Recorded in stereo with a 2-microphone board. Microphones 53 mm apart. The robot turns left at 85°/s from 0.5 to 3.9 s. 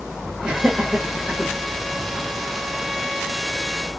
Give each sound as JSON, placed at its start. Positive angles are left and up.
{"t": 0.4, "sound": "laughter", "side_deg": -35, "distance_m": 1.3}